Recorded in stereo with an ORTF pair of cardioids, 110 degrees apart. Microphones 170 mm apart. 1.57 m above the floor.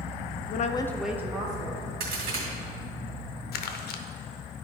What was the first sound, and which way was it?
A woman speaking, 60° left.